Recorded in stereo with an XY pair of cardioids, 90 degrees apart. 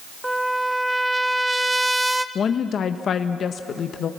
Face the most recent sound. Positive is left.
turn(degrees=60)